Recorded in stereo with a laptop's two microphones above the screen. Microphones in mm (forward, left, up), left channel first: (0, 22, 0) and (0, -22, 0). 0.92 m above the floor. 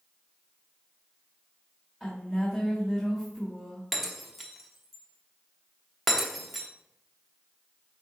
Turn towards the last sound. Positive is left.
turn(degrees=-5)  # may be behind; listen again after turning